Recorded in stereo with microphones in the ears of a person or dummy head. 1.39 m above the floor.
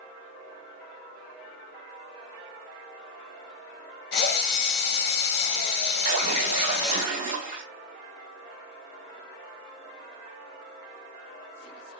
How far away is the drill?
About 1.3 m.